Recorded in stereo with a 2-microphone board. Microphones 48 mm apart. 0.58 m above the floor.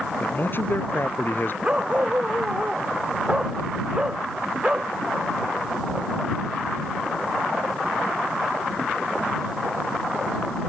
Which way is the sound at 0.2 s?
45° left (ahead or behind).